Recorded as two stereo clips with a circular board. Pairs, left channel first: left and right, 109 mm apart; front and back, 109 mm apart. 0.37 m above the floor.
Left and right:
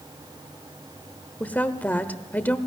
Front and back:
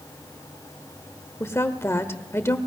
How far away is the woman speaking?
About 1.0 m.